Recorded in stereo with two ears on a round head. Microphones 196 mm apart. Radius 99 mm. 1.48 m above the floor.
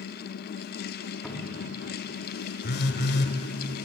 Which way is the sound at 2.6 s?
50° left (ahead or behind).